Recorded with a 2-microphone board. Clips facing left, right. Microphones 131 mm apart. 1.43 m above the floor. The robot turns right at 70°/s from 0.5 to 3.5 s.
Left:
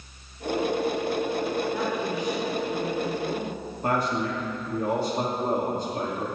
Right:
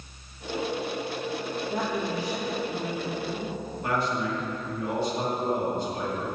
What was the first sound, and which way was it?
A woman speaking, 75° right.